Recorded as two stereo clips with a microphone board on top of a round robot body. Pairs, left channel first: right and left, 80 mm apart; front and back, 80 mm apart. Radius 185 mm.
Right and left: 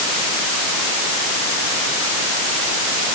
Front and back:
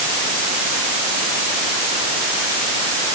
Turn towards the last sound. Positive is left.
No sound to turn to.